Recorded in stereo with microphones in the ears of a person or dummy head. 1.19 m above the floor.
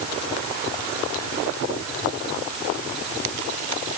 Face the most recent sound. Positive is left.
No sound to turn to.